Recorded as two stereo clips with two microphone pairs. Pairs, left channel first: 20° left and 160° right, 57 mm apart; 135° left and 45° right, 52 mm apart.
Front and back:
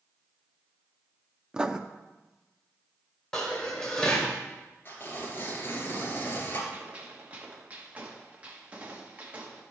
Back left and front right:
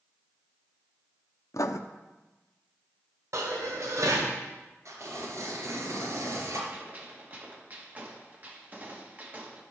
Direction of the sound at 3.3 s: 60° right.